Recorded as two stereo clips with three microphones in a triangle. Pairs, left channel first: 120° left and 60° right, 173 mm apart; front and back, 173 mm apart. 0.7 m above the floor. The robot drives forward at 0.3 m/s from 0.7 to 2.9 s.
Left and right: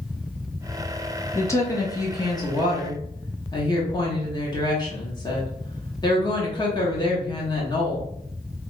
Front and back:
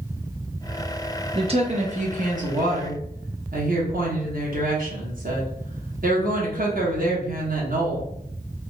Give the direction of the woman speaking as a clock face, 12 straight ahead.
6 o'clock.